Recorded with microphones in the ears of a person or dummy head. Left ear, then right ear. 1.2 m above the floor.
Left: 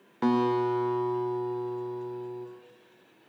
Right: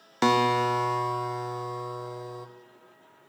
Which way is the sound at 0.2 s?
80° right.